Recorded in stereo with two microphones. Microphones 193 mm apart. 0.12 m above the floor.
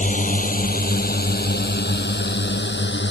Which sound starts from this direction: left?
A drone, at 0.0 s.